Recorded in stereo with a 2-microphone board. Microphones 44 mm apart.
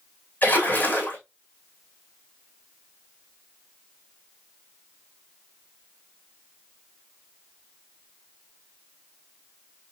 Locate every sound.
0.4 s a splash: 45° left (ahead or behind), 2.5 m